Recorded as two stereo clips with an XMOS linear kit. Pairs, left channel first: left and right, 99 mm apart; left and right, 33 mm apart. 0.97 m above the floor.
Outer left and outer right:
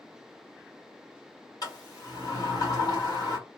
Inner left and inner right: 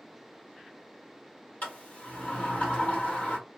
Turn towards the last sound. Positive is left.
turn(degrees=40)  # may be behind; listen again after turning